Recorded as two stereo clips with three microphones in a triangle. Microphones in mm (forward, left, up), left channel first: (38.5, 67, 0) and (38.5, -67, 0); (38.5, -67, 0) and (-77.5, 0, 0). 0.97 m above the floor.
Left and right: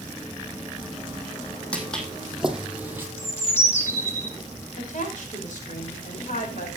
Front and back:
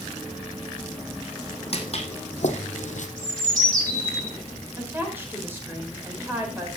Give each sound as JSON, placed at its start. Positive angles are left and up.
{"t": 1.7, "sound": "footsteps", "azimuth_deg": 10, "distance_m": 3.0}
{"t": 3.2, "sound": "a bird", "azimuth_deg": 160, "distance_m": 3.0}
{"t": 4.8, "sound": "a woman speaking", "azimuth_deg": 75, "distance_m": 5.0}